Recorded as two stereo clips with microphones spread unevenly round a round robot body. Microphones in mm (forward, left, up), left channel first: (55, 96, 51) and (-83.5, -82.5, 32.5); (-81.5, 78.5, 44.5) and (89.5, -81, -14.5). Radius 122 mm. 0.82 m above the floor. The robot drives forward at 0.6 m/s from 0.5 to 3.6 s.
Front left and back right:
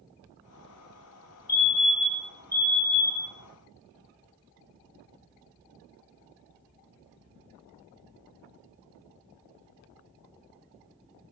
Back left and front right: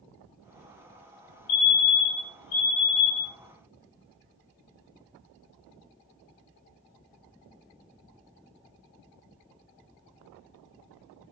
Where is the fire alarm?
150° left, 5 m; by 3.4 s 155° left, 6 m.